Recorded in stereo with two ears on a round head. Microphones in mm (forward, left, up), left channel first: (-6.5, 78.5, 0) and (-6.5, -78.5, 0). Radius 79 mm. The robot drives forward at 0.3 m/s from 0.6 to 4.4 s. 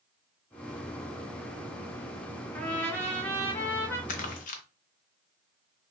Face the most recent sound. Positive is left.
turn(degrees=45)  # may be behind; listen again after turning